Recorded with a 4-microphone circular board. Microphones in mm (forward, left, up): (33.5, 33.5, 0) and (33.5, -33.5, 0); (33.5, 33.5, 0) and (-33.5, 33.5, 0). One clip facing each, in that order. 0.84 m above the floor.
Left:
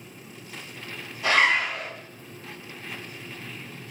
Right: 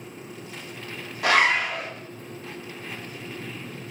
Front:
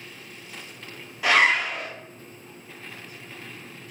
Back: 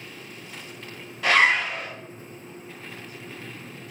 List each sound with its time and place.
1.2 s a zipper: 80° right, 0.7 m